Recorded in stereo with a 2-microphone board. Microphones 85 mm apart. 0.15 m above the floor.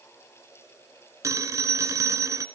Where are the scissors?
I don't hear scissors.